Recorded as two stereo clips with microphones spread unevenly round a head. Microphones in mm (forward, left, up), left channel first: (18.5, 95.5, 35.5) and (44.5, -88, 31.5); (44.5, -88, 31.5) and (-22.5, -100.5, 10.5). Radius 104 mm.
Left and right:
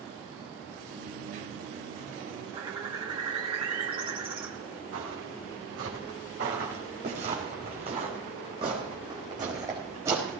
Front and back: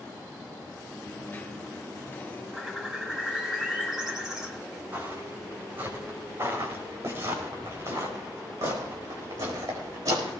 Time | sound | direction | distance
0.9 | a dropped coin | 45° right | 3.5 m
2.5 | a bird | 60° right | 1.5 m
4.9 | footsteps | 115° right | 6 m